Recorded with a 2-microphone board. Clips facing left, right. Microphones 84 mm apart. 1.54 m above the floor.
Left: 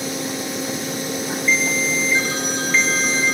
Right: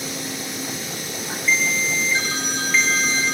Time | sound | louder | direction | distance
1.5 | a ringtone | even | 5° left (ahead or behind) | 1.0 m